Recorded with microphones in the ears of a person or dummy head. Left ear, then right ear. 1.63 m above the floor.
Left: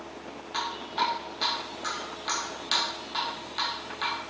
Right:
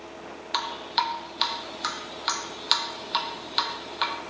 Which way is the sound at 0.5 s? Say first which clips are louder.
Right 3 dB; 50° right (ahead or behind).